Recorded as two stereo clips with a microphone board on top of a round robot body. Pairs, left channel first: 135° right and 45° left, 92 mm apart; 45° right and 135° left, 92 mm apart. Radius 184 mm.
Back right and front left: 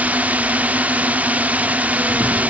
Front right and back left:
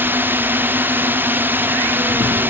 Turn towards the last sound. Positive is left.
turn(degrees=100)